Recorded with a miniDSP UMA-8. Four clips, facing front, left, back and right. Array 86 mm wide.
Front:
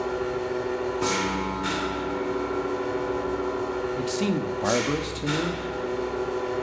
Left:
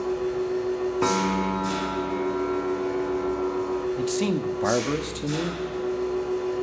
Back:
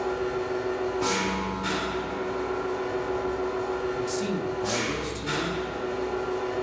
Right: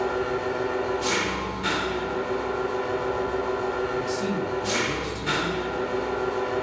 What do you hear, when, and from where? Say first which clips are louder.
0.0 s an engine running: even, even; 85° right, 1.4 m
1.0 s a piano: left 4 dB, front 1 dB; 85° left, 1.2 m
4.0 s a man speaking: left 1 dB, front 2 dB; 55° left, 1.1 m